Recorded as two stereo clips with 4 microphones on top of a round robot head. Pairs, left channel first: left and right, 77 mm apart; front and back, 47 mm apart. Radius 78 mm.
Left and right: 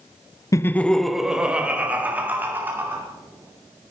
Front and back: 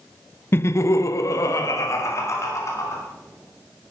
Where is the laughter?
40° left, 0.5 m; by 3.0 s 25° right, 2.5 m.